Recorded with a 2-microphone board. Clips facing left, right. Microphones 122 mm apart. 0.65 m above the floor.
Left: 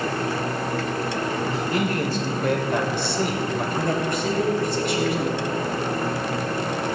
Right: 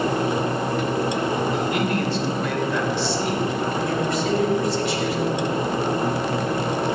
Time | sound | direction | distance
1.5 | a man speaking | 35° left (ahead or behind) | 2 m
3.8 | a woman speaking | 55° left (ahead or behind) | 3 m